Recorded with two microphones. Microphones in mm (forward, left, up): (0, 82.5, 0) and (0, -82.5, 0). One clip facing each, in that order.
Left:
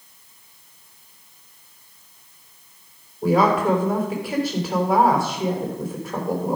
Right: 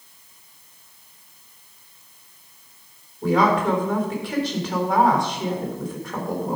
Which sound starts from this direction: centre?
A woman speaking, at 3.2 s.